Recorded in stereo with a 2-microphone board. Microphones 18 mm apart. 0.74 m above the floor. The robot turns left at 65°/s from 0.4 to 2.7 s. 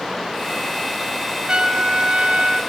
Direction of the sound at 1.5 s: 40° right.